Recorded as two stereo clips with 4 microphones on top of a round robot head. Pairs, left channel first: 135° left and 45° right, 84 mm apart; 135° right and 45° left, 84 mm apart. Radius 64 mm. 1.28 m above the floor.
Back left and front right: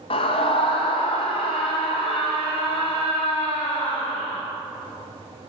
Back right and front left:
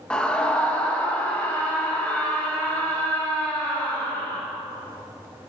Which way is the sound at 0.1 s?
145° left.